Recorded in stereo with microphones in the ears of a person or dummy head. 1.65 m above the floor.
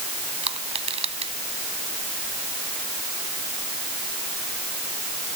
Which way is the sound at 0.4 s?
30° right (ahead or behind).